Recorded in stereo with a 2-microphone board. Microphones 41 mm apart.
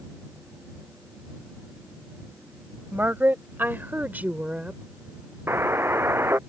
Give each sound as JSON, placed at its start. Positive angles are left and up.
{"t": 2.9, "sound": "a woman speaking", "side_deg": -55}
{"t": 5.5, "sound": "a buzzer", "side_deg": -85}